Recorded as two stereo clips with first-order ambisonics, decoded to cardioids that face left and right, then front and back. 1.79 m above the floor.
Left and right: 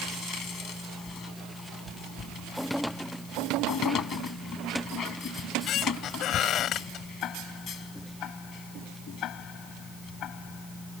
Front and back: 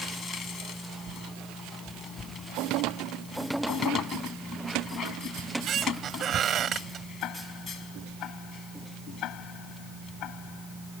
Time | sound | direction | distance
5.4 | a squeak | 130° left | ?
7.2 | ticking | 40° left | ?